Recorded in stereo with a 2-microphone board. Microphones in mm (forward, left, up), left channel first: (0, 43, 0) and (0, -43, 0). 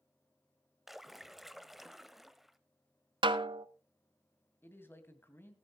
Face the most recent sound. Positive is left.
turn(degrees=25)  # may be behind; listen again after turning